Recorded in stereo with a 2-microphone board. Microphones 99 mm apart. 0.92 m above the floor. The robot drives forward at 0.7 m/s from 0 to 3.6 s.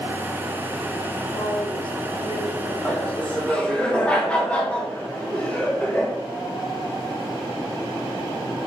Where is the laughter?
15° left (ahead or behind), 2.5 m.